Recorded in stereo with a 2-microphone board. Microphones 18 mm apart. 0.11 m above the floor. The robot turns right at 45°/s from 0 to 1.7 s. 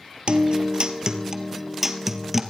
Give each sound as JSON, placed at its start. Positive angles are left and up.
{"t": 0.3, "sound": "a guitar", "azimuth_deg": -80, "distance_m": 1.6}